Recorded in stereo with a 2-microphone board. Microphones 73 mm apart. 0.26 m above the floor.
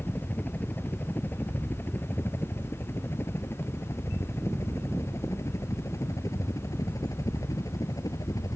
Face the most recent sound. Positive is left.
turn(degrees=50)  # may be behind; listen again after turning